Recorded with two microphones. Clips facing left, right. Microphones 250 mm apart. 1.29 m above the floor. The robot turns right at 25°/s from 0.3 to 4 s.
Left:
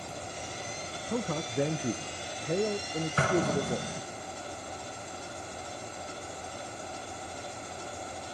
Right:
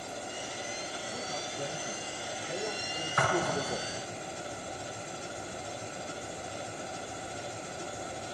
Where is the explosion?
30° left (ahead or behind), 1.6 m; by 4.0 s 50° left (ahead or behind), 1.6 m.